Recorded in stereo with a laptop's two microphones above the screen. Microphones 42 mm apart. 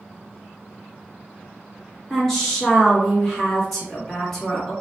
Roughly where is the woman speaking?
Centre.